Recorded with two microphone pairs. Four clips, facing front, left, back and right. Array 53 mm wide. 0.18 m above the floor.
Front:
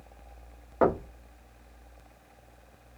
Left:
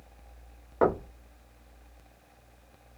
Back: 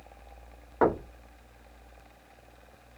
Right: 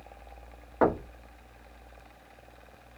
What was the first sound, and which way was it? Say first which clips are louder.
Knocking: even, even; 150° right.